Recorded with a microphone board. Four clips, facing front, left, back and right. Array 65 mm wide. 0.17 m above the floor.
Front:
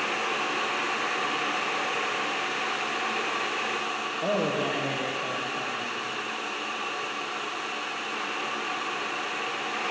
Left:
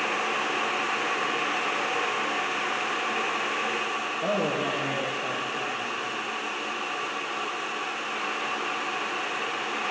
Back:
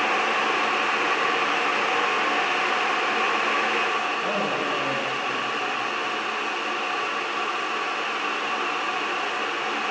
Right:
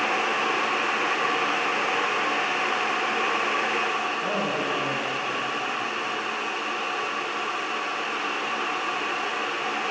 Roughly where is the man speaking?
Ahead left.